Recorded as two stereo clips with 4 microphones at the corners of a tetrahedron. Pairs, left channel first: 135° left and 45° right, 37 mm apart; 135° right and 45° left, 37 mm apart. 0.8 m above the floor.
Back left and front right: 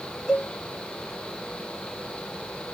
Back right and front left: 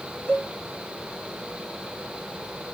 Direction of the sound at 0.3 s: 125° right.